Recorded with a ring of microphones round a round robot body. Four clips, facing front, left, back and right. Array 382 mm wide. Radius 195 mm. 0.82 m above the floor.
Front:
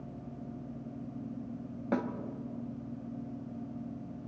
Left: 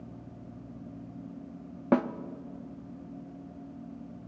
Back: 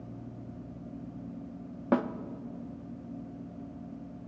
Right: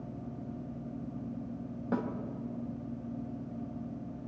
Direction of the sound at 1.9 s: 110° left.